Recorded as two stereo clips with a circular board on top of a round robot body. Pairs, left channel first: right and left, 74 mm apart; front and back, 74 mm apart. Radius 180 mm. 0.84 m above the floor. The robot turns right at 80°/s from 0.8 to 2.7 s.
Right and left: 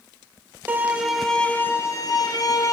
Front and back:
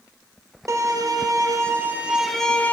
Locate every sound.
0.7 s a violin: 150° left, 1.2 m; by 2.7 s 60° right, 1.2 m